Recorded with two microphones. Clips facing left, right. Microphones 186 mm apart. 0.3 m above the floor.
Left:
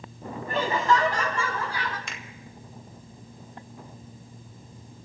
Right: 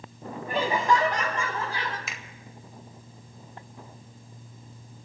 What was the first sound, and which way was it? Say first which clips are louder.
Laughter: even; 10° right (ahead or behind).